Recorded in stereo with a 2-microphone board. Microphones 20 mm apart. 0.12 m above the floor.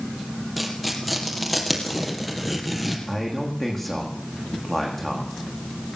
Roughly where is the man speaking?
Centre.